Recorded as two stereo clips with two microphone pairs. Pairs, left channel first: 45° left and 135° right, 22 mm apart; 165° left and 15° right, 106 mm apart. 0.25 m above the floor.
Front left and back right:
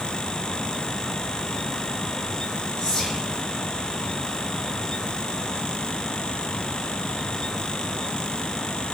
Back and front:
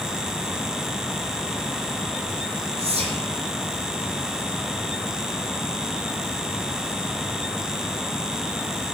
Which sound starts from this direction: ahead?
Whispering, at 2.8 s.